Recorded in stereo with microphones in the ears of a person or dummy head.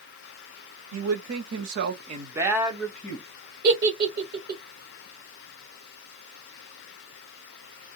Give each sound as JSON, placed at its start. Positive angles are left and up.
{"t": 0.9, "sound": "a man speaking", "side_deg": -80, "distance_m": 1.2}
{"t": 3.6, "sound": "a giggle", "side_deg": -45, "distance_m": 1.3}